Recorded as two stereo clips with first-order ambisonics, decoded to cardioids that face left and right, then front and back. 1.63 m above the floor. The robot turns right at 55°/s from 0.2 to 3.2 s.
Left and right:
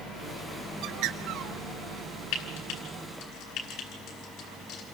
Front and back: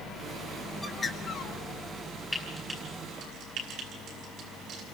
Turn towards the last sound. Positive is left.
turn(degrees=135)